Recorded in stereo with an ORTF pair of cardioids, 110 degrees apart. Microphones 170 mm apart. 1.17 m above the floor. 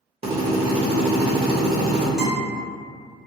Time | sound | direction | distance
0.2 | a drill | 35° right | 0.8 m
2.2 | a guitar | straight ahead | 1.3 m